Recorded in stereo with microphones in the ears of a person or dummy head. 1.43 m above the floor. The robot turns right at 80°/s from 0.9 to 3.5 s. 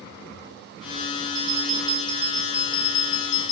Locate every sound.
1.4 s a bell: 70° right, 5.5 m; by 3.5 s 100° left, 5.5 m